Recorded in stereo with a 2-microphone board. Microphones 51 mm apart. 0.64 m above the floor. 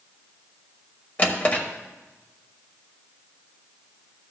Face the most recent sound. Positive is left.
turn(degrees=35)  # may be behind; listen again after turning